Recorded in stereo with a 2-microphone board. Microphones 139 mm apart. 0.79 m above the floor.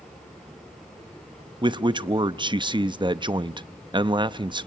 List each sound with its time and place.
1.6 s a man speaking: 35° right (ahead or behind), 0.6 m